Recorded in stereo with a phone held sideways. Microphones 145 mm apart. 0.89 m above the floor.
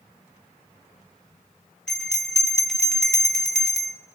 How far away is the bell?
About 1.0 m.